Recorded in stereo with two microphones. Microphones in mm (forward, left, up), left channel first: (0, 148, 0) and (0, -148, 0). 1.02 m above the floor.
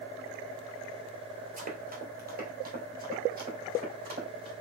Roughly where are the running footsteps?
Right.